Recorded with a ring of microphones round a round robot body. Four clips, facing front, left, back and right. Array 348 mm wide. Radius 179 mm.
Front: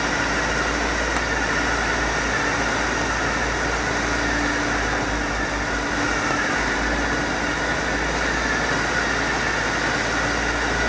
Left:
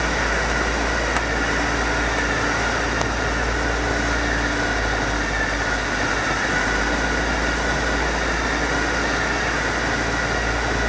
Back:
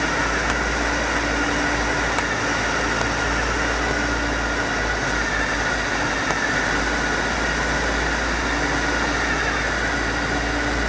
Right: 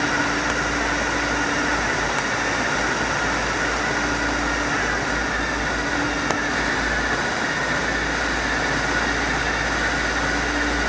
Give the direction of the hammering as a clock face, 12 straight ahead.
No hammering in this recording.